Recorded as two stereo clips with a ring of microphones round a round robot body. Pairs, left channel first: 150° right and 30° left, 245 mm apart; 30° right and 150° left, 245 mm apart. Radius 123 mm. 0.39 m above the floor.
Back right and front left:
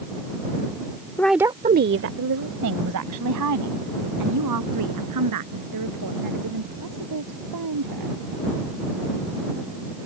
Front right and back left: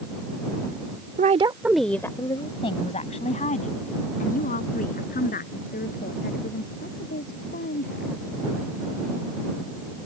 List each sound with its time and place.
1.2 s a woman speaking: 140° left; by 8.1 s 25° left